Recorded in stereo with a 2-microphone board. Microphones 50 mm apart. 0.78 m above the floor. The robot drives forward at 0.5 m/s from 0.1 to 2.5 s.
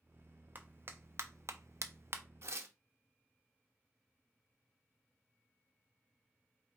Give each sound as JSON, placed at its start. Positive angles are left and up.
{"t": 0.6, "sound": "a clap", "side_deg": -40, "distance_m": 0.7}
{"t": 2.4, "sound": "tearing paper", "side_deg": -60, "distance_m": 0.6}